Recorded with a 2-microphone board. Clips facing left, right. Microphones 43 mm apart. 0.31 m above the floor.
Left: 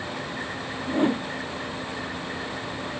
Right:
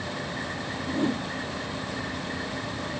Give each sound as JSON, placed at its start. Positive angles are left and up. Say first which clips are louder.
{"t": 0.9, "sound": "a whoosh", "louder": "left 4 dB", "side_deg": 35}